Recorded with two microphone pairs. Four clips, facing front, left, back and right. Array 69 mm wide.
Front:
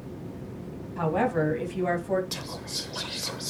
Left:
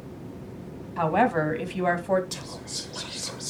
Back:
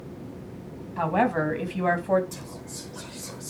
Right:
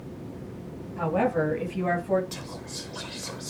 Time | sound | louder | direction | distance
1.0 | a woman speaking | left 2 dB, back 2 dB | 115° left | 3 m
2.3 | whispering | even, front 2 dB | 15° right | 1.0 m